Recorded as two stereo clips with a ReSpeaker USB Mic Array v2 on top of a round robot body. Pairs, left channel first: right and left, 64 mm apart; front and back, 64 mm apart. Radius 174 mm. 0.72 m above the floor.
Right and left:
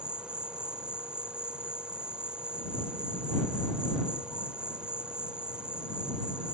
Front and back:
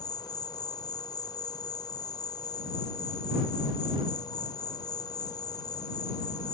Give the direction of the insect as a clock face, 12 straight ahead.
12 o'clock.